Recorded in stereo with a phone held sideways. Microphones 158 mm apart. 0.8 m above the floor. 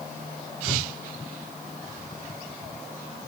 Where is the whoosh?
10° left (ahead or behind), 1.6 m.